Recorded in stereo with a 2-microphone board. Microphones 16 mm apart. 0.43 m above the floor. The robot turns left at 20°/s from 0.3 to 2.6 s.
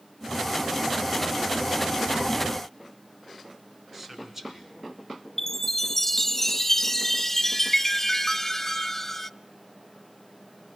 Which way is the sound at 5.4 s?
20° left (ahead or behind).